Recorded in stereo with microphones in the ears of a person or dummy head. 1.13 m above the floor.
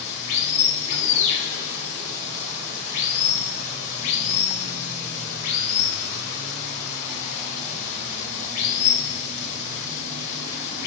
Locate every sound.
0.0 s running water: 40° left (ahead or behind), 1.1 m